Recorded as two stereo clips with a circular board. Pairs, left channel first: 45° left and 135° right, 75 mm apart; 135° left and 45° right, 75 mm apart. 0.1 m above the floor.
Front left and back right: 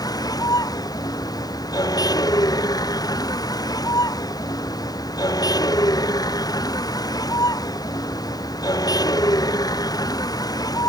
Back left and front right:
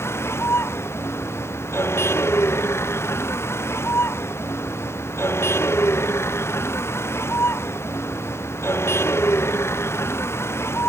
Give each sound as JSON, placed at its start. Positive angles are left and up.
{"t": 0.0, "sound": "a vehicle", "azimuth_deg": 80}